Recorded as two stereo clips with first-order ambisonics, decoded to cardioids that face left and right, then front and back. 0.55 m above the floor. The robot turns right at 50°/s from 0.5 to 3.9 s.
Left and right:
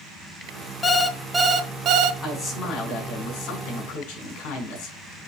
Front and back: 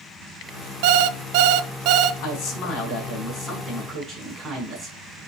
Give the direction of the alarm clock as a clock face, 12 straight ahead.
7 o'clock.